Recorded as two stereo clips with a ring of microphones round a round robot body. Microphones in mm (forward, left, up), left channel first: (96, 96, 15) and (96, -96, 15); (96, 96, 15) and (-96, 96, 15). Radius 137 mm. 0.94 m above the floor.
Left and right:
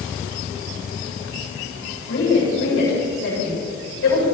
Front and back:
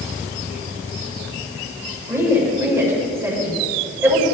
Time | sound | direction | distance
2.1 | a woman speaking | 105° left | 6.5 m